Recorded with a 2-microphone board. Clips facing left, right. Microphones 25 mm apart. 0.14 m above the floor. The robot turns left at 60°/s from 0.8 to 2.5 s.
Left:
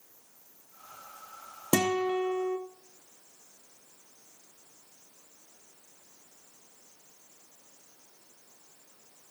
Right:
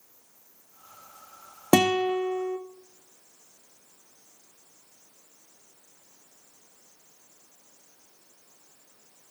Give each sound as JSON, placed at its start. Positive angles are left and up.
{"t": 1.7, "sound": "a guitar", "azimuth_deg": -135, "distance_m": 0.8}